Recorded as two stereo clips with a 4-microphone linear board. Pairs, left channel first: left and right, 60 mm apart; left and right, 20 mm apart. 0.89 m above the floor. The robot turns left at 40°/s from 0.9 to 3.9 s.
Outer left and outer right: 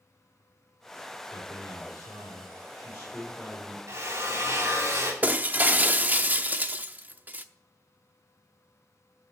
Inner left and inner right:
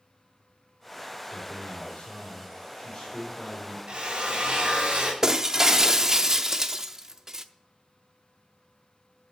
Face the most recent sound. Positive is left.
turn(degrees=-30)  # may be behind; listen again after turning